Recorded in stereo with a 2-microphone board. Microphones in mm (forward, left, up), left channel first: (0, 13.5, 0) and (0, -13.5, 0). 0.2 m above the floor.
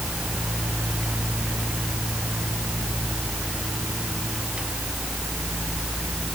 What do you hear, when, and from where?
Only background noise.